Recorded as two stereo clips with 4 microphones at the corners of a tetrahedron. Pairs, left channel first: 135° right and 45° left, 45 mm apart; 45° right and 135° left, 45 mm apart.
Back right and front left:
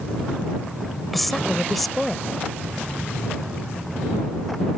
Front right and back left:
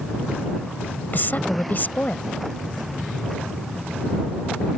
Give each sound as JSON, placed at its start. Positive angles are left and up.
{"t": 1.1, "sound": "a woman speaking", "azimuth_deg": -50}